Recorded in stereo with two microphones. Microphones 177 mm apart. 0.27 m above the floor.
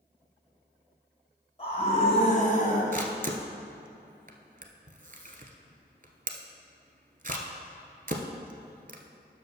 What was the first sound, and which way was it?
A scream, 35° left (ahead or behind).